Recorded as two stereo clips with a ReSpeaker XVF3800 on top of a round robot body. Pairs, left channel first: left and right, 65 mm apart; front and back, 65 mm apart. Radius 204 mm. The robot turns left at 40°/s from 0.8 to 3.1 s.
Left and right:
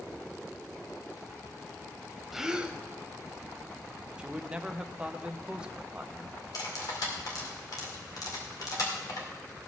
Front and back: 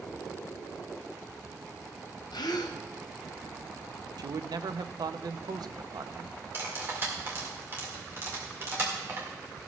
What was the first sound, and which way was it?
A gasp, 5° right.